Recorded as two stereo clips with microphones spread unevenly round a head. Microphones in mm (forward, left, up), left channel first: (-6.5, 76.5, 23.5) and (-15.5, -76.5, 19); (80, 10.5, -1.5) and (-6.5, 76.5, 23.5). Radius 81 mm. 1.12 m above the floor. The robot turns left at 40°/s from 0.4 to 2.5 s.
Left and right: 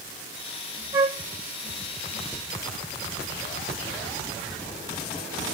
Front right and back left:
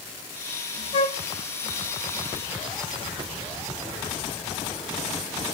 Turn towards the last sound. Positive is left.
turn(degrees=-90)